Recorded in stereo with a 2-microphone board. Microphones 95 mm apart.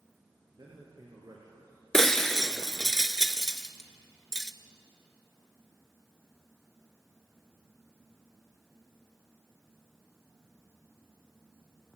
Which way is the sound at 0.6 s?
45° right (ahead or behind).